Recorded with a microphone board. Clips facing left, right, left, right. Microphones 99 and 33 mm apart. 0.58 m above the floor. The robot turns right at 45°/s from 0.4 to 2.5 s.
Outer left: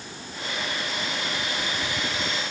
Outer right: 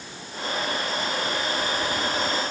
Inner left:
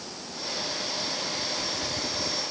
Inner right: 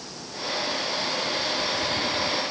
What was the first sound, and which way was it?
Only background noise.